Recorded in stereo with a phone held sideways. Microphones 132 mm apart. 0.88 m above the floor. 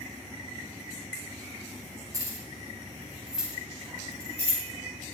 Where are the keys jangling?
25° right (ahead or behind), 4 m; by 4.6 s 15° left (ahead or behind), 4.5 m.